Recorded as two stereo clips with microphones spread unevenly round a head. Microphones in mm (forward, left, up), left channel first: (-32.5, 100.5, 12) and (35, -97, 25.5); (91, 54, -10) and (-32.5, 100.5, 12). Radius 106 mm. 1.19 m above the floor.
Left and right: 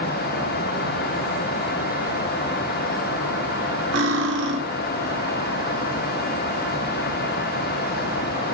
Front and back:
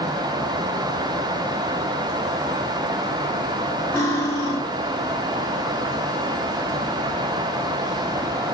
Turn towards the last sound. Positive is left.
turn(degrees=-105)